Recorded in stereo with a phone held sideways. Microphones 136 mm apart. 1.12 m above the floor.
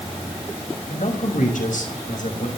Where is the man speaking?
80° left, 5.5 m; by 2.5 s 90° left, 5 m.